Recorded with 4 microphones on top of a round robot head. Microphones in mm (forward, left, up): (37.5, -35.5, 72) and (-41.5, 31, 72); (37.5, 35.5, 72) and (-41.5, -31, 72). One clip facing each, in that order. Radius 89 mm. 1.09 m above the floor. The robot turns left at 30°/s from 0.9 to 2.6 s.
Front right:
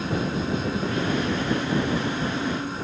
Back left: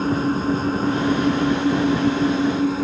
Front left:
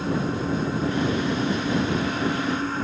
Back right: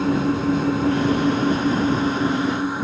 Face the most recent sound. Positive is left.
turn(degrees=140)